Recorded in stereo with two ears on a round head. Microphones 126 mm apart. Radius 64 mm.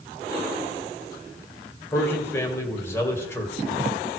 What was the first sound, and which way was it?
A man speaking, 15° left (ahead or behind).